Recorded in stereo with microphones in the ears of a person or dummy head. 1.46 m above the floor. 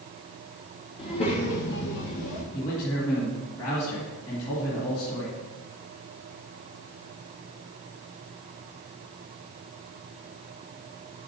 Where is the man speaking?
30° left (ahead or behind), 1.8 m.